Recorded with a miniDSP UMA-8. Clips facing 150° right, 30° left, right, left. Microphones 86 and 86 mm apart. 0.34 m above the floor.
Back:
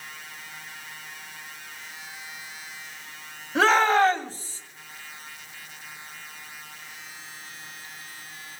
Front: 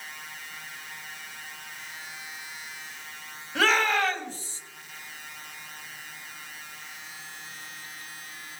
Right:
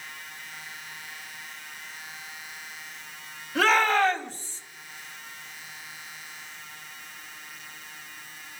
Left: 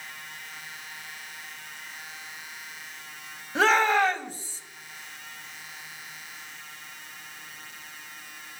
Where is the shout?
150° left, 2.5 m; by 4.6 s 170° left, 2.5 m.